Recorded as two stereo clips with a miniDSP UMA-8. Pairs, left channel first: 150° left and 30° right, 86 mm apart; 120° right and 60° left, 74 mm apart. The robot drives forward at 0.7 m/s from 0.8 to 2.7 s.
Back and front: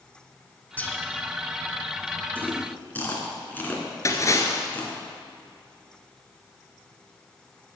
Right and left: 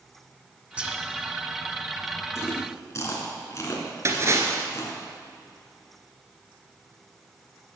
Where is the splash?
105° left, 1.5 m.